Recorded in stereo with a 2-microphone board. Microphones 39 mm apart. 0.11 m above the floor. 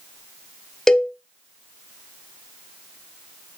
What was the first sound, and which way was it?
A cowbell, 15° left (ahead or behind).